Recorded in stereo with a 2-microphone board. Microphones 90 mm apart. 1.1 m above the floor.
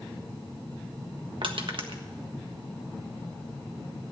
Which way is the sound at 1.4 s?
70° right (ahead or behind).